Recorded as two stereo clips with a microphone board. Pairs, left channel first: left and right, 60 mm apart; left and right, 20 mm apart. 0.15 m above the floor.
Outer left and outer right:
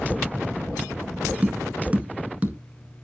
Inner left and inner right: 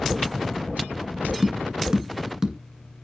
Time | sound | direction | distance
1.4 | tapping | 25° right (ahead or behind) | 1.6 m